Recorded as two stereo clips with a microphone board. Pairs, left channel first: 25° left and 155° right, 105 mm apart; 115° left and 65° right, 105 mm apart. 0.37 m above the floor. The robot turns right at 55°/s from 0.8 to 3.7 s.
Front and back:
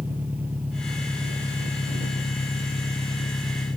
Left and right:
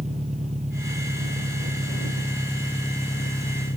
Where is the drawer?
No drawer in this recording.